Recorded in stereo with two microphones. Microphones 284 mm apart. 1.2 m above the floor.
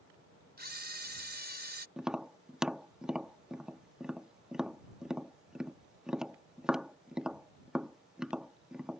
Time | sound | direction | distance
0.6 | a camera shutter | 35° right (ahead or behind) | ?
2.0 | tapping | centre (ahead or behind) | ?